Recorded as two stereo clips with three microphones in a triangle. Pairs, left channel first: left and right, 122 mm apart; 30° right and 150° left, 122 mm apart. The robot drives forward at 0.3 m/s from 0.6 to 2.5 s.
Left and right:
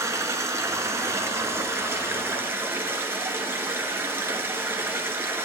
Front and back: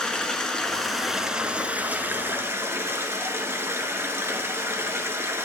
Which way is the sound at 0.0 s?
105° right.